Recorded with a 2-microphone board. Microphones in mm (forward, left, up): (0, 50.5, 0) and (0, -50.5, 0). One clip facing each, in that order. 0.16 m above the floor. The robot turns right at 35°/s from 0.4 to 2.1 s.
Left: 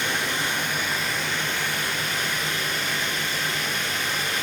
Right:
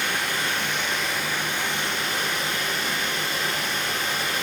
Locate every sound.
0.0 s running water: 155° left, 3.5 m; by 4.5 s 145° right, 3.5 m